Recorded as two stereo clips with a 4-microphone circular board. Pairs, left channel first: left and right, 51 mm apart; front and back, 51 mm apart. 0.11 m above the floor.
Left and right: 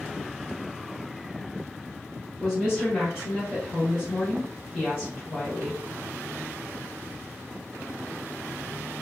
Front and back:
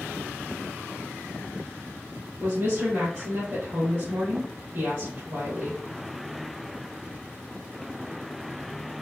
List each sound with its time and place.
2.4 s a woman speaking: 170° right, 2.5 m